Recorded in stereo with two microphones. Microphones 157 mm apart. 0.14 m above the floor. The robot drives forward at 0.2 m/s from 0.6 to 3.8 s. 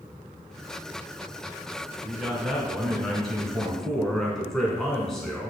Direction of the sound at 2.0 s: Centre (ahead or behind).